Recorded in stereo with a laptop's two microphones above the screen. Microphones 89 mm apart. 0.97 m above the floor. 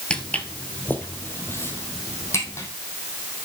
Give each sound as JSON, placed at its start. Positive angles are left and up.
{"t": 0.1, "sound": "footsteps", "side_deg": 10, "distance_m": 1.2}